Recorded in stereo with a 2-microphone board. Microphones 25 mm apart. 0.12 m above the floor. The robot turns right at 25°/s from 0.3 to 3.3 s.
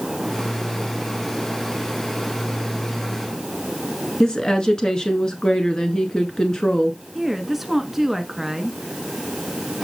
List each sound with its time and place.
4.2 s a woman speaking: 30° left (ahead or behind), 1.5 m
7.2 s a woman speaking: 10° right (ahead or behind), 1.2 m